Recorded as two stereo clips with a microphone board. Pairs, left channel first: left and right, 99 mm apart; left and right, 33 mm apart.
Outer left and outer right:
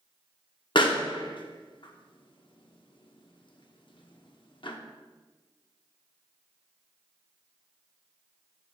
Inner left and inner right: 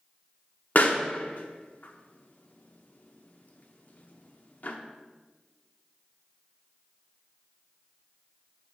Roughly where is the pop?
Left.